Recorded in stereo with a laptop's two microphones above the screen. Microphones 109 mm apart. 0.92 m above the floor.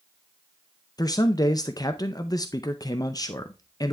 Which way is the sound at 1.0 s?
35° left (ahead or behind).